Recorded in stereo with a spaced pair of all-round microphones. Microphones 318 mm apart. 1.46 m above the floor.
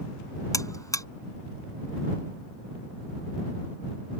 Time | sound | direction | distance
0.5 | a buzzer | 10° left (ahead or behind) | ?